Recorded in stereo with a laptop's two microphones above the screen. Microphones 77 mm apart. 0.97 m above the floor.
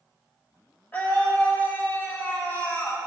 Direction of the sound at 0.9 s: 25° left (ahead or behind).